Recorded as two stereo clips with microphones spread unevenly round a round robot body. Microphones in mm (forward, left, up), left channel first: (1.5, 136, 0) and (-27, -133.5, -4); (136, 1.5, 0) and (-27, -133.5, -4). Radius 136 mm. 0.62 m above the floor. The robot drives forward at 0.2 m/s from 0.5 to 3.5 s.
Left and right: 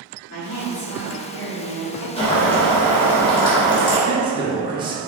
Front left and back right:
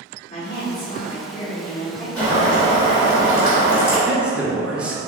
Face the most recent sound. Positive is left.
turn(degrees=-70)